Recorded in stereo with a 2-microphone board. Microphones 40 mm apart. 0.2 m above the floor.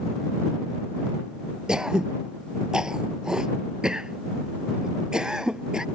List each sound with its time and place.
1.7 s throat clearing: 20° right (ahead or behind)